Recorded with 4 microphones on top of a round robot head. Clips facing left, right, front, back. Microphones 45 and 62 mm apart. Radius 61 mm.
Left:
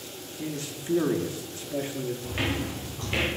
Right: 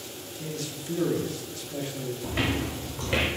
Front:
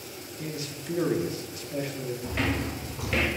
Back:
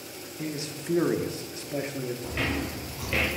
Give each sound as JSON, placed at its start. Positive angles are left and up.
{"t": 0.4, "sound": "a man speaking", "azimuth_deg": 140, "distance_m": 0.8}
{"t": 2.2, "sound": "footsteps", "azimuth_deg": -90, "distance_m": 2.0}